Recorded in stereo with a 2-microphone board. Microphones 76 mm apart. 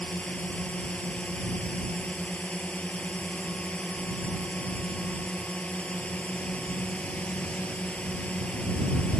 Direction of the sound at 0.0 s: 15° left (ahead or behind).